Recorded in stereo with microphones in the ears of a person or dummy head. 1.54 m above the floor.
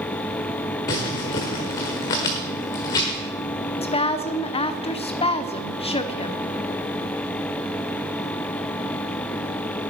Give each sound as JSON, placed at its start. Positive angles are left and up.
{"t": 0.9, "sound": "crumpling", "side_deg": 20, "distance_m": 1.3}
{"t": 3.8, "sound": "a woman speaking", "side_deg": 25, "distance_m": 0.9}